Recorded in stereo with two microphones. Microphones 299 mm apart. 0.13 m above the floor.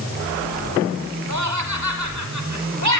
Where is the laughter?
60° right (ahead or behind), 5.5 m.